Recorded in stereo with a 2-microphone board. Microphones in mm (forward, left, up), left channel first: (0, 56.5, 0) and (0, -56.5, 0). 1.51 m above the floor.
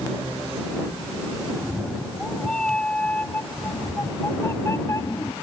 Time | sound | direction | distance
1.5 | a cat meowing | centre (ahead or behind) | ?